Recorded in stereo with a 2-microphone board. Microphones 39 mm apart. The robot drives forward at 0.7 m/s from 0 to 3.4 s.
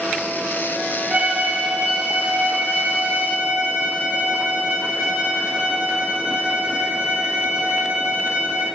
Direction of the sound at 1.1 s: 45° right (ahead or behind).